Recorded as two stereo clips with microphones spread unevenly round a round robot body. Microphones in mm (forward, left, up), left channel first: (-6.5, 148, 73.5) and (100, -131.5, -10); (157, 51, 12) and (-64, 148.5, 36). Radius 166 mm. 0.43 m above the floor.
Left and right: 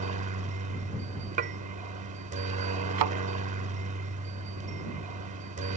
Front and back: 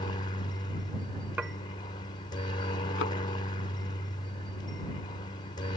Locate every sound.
0.0 s a helicopter: 80° right
1.4 s dishes clattering: 115° right
3.0 s a thud: 85° right